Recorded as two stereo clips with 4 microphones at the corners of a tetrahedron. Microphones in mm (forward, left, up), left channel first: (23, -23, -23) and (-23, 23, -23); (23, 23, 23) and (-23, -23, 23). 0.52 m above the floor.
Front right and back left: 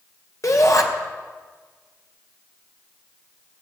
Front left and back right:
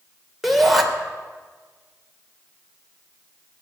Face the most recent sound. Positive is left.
turn(degrees=-45)